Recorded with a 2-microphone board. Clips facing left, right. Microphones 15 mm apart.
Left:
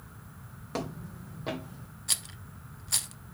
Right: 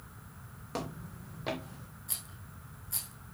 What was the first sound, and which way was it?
Footsteps, 10° left (ahead or behind).